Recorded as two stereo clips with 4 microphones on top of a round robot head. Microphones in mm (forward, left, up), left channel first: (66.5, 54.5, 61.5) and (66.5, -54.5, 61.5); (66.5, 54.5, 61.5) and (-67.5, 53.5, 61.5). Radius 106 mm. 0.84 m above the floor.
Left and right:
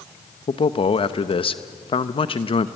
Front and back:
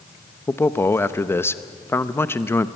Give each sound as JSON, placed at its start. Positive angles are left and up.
{"t": 0.5, "sound": "a man speaking", "azimuth_deg": 70, "distance_m": 0.8}